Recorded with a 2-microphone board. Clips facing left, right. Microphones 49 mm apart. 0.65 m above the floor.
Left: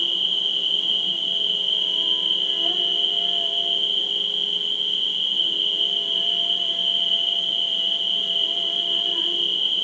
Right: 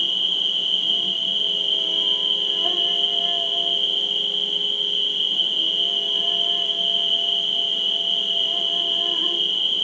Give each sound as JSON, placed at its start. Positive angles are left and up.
{"t": 0.0, "sound": "an insect", "side_deg": -60, "distance_m": 1.3}